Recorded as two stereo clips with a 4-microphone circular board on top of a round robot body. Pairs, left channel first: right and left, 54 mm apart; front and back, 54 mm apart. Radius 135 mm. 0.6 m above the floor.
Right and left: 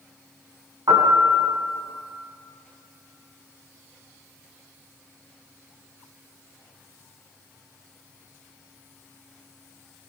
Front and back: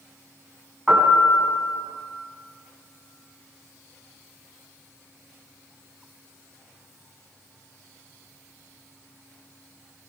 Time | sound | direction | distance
0.9 | a piano | 100° left | 4 m